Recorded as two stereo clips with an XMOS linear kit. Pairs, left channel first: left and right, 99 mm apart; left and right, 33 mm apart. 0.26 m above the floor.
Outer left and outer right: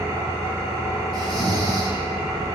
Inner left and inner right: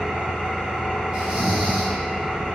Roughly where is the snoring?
Right.